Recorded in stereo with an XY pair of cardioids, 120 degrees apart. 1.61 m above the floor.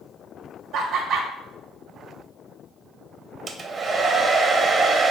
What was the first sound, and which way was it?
Laughter, 70° right.